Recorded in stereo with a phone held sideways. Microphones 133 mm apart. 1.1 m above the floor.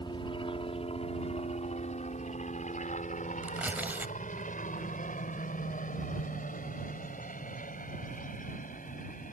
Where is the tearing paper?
10° right (ahead or behind).